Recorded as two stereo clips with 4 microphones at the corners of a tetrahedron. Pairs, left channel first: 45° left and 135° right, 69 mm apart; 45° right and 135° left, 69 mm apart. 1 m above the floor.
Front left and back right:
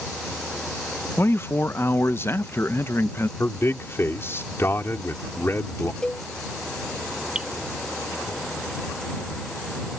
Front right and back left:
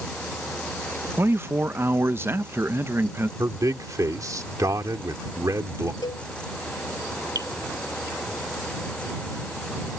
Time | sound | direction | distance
1.2 | a man speaking | 90° left | ?
3.4 | a man speaking | 100° left | ?
6.0 | a cowbell | 30° right | ?
7.3 | dripping | 150° left | ?